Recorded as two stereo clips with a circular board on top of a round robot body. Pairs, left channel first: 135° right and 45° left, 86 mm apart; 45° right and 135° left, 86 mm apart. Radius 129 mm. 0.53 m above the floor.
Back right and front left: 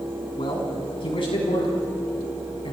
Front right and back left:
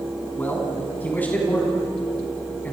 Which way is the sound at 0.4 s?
115° right.